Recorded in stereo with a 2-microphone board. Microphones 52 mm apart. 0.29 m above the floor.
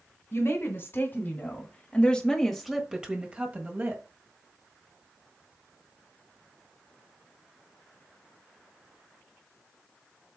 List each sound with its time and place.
0.3 s a woman speaking: 55° left (ahead or behind), 2 m; by 4.0 s 40° right (ahead or behind), 1.8 m